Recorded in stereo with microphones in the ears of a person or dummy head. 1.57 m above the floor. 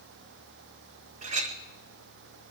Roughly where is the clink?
Right.